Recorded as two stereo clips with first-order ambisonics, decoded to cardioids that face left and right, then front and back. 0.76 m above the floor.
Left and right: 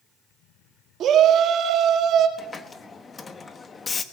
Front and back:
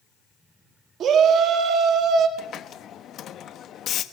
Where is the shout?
135° right, 1.9 m.